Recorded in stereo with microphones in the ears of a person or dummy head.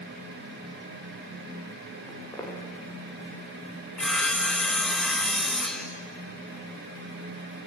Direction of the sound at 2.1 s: 15° left (ahead or behind).